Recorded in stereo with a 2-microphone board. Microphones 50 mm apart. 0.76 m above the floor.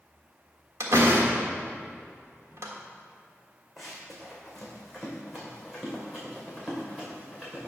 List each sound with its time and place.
0.8 s a door slam: 65° right (ahead or behind), 1.4 m
3.8 s running footsteps: centre (ahead or behind), 2.5 m; by 7.7 s 5° right (ahead or behind), 4.5 m